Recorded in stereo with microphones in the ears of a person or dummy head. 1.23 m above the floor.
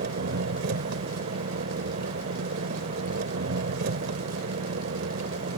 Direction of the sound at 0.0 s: 60° right (ahead or behind).